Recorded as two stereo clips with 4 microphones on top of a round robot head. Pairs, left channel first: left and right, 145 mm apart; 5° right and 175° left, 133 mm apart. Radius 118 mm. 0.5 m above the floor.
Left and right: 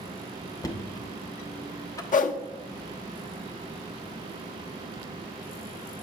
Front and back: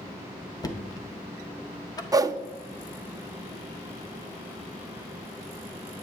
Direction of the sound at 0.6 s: 40° left.